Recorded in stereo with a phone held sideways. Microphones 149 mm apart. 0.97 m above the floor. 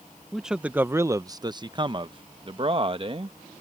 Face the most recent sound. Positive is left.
turn(degrees=-40)  # may be behind; listen again after turning